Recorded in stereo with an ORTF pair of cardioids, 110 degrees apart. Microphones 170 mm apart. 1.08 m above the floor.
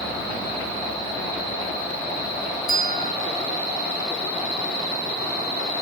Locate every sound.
2.7 s a bell: 25° left, 2.5 m